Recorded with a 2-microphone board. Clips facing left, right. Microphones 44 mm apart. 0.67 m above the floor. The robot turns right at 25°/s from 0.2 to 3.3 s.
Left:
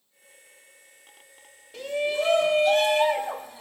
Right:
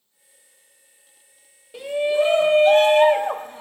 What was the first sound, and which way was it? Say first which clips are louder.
A shout: right 6 dB; 165° right.